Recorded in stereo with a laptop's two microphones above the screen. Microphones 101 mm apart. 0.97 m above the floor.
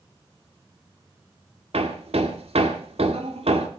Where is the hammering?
80° right, 2 m.